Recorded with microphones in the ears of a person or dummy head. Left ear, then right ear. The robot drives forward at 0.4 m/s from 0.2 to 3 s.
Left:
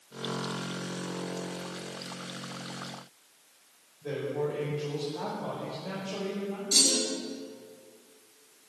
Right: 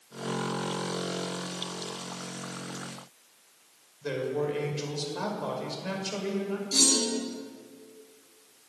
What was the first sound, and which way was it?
A man speaking, 70° right (ahead or behind).